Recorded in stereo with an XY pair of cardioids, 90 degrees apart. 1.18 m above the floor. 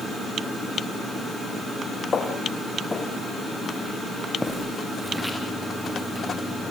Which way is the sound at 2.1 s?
40° left.